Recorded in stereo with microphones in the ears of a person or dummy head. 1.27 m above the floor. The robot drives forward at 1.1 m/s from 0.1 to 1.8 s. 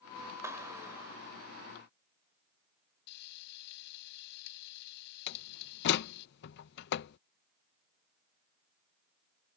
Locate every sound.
0.4 s a clap: 10° right (ahead or behind)
3.1 s frying: 55° left (ahead or behind)
5.3 s a door slam: 55° left (ahead or behind)